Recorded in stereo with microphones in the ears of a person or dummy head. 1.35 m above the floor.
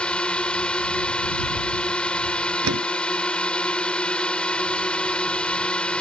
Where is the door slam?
85° right.